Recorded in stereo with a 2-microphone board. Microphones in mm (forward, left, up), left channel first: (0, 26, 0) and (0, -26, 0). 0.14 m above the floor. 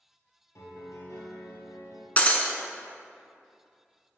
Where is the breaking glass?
30° left (ahead or behind), 0.7 m.